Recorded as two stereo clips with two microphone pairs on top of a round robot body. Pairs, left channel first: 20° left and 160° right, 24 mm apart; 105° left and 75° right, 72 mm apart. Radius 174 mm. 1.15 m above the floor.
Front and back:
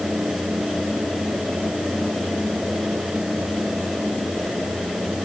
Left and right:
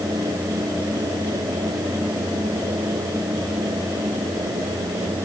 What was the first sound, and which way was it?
Only background noise.